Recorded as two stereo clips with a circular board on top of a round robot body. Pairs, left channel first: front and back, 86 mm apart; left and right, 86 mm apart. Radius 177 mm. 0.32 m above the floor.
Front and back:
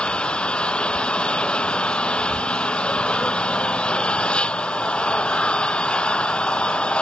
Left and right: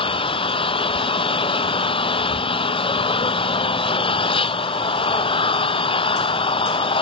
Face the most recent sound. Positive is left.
turn(degrees=80)